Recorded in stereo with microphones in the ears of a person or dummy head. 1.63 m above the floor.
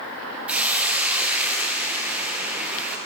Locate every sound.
0.5 s a hiss: 15° right (ahead or behind), 1.1 m